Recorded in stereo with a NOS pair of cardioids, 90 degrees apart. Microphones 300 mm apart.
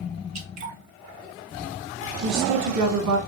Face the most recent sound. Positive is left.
turn(degrees=-70)